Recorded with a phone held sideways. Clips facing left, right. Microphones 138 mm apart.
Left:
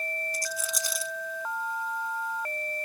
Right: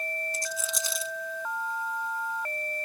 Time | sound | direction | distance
0.3 | a rattle | 20° right (ahead or behind) | ?